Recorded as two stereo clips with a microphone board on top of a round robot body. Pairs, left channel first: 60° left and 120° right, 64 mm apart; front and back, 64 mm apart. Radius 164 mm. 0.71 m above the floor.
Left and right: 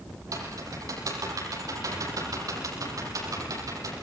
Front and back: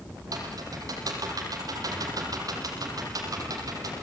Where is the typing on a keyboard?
155° right, 8 m.